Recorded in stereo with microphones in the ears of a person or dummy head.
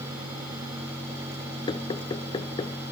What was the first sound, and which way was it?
Knocking, 20° left (ahead or behind).